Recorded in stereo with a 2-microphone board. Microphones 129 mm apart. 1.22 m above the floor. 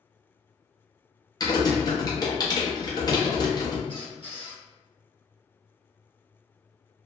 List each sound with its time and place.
1.4 s typing on a keyboard: 30° left (ahead or behind), 0.6 m
3.9 s a squeak: 45° left (ahead or behind), 1.0 m